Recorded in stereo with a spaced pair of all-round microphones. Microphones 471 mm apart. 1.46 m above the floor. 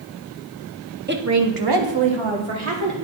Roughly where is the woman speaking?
Right.